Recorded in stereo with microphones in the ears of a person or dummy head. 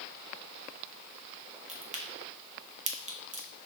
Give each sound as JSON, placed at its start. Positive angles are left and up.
{"t": 1.7, "sound": "a crack", "side_deg": -35, "distance_m": 1.0}